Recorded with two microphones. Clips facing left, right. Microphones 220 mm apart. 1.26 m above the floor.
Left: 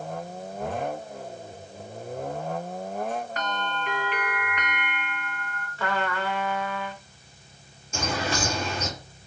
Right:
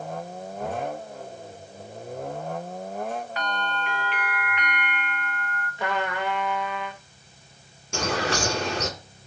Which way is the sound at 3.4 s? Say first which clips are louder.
Right 1 dB; 45° left (ahead or behind).